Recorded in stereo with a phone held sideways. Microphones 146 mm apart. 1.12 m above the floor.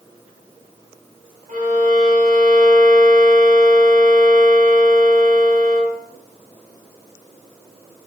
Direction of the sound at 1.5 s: 60° right (ahead or behind).